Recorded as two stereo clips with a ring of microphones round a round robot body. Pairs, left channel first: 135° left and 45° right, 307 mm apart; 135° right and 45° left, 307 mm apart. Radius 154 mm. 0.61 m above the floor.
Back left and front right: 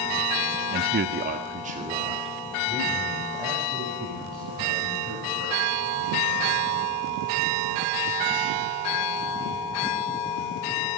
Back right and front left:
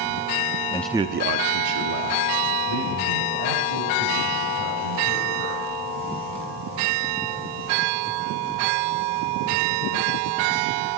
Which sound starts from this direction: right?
A man speaking, at 0.7 s.